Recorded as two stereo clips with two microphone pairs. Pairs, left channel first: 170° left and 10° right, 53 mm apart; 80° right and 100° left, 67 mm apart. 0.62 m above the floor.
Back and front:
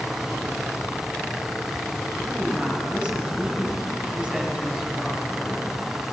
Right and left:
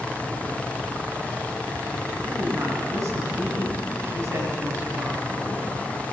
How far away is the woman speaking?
About 4 m.